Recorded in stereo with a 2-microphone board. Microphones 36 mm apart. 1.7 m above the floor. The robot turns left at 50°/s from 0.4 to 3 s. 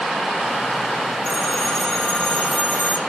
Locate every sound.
1.2 s a phone ringing: 165° left, 3 m; by 3.0 s 75° left, 3 m